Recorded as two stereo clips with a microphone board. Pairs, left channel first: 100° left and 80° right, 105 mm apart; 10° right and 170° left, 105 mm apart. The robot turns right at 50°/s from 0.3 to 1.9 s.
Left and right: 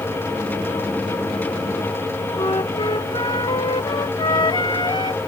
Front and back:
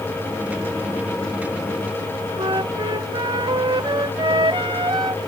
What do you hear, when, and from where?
2.4 s a flute: 135° left